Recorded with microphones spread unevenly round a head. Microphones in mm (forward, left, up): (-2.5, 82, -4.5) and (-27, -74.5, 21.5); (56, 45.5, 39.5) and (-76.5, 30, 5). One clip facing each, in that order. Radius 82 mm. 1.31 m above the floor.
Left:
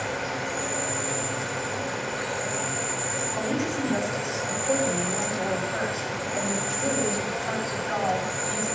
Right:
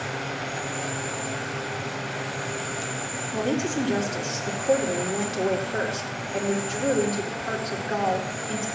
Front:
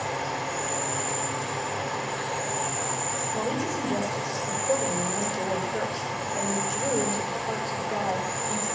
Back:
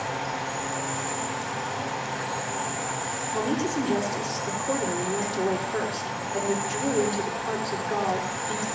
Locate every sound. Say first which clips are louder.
0.0 s an insect: left 2 dB, even; 95° left, 3 m
3.3 s a woman speaking: right 3 dB, back 4 dB; 150° right, 4 m